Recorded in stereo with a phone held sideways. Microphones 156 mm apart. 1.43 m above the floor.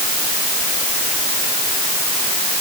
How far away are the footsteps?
No footsteps in this recording.